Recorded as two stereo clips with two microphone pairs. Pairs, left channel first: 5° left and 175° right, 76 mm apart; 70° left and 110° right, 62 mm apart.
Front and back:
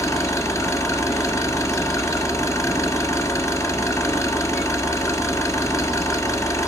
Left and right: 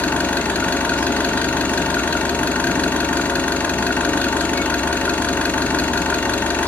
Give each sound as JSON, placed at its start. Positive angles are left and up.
{"t": 0.0, "sound": "an engine running", "azimuth_deg": 15, "distance_m": 1.6}